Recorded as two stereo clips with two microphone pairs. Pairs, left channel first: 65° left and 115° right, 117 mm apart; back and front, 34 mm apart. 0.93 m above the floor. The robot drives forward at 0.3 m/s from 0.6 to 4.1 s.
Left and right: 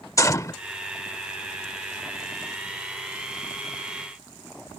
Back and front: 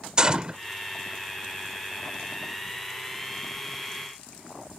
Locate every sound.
0.2 s a gunshot: 40° left